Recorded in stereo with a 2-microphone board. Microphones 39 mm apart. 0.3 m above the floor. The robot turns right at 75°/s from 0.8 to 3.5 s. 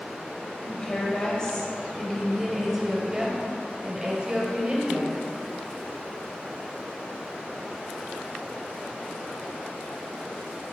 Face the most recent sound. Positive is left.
turn(degrees=-25)  # may be behind; listen again after turning